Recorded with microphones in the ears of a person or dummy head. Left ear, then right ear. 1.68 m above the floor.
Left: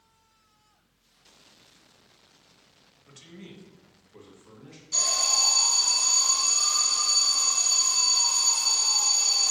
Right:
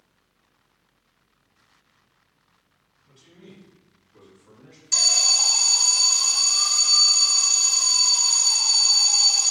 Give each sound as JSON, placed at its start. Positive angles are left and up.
{"t": 3.0, "sound": "a man speaking", "side_deg": 65, "distance_m": 0.6}
{"t": 4.9, "sound": "an alarm", "side_deg": -55, "distance_m": 0.6}